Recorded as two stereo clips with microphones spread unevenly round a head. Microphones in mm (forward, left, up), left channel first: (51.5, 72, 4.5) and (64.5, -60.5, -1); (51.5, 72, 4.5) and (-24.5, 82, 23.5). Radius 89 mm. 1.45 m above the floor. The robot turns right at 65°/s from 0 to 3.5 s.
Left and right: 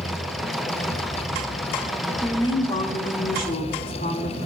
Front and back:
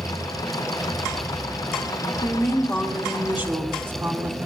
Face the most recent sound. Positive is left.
turn(degrees=115)